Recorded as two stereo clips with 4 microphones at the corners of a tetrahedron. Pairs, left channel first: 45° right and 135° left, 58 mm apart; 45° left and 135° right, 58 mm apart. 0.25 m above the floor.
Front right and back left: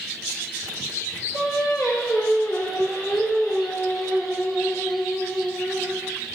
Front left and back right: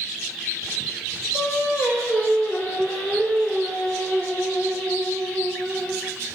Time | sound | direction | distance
1.3 | singing | 35° right | 0.9 m